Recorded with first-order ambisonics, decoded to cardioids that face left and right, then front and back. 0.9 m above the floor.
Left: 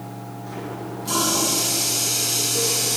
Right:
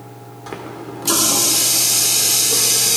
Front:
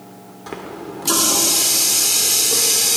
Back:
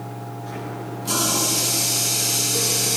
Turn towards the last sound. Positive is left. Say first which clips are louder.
# right 3 dB, front 3 dB
turn(degrees=-50)